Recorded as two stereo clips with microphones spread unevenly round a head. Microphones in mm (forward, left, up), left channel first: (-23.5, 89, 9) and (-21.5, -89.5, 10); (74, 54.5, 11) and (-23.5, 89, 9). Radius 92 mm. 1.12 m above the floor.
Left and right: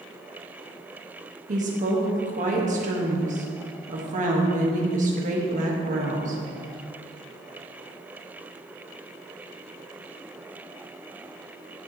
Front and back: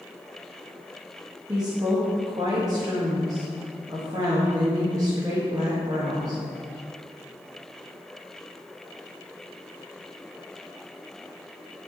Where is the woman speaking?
135° right, 1.6 m.